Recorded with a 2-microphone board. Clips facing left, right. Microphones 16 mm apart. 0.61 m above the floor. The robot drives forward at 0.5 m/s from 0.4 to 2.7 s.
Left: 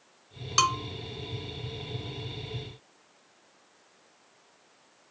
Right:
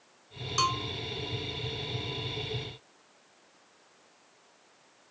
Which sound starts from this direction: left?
A bell, at 0.6 s.